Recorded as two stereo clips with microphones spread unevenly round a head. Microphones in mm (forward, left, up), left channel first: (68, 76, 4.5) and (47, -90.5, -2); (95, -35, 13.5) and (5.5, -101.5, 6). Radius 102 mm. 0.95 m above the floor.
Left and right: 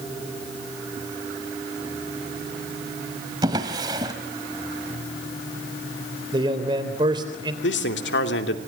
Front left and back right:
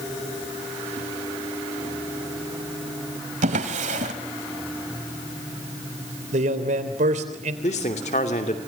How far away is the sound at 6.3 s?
About 3 m.